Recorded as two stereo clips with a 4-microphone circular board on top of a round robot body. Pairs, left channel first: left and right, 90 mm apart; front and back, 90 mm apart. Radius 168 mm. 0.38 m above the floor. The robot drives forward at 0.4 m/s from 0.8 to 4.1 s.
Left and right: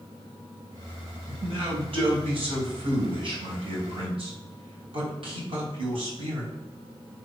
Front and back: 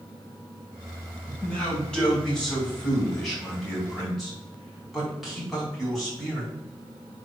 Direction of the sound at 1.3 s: 80° right.